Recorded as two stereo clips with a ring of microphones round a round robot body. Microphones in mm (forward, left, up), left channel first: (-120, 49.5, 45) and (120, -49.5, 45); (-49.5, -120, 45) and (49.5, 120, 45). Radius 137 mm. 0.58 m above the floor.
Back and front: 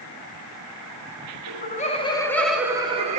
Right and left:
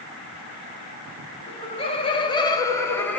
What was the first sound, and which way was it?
Laughter, 170° right.